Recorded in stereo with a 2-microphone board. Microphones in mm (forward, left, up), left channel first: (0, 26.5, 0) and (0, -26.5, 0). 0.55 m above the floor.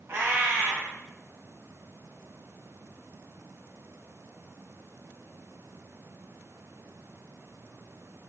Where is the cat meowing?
50° right (ahead or behind), 1.0 m.